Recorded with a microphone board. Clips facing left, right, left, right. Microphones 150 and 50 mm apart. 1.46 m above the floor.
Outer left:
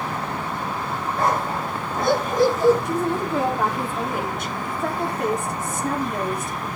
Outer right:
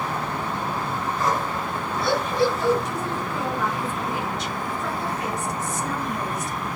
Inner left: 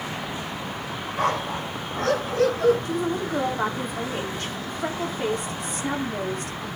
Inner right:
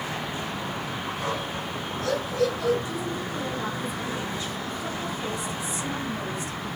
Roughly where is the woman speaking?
Left.